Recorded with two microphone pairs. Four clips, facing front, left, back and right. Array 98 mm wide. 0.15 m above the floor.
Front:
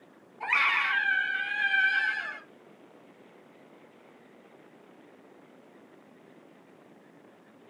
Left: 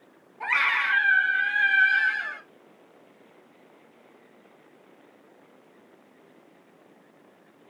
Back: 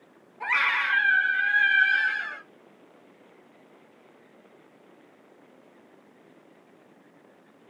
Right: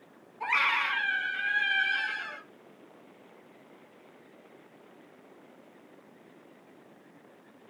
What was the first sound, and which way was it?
A scream, 140° left.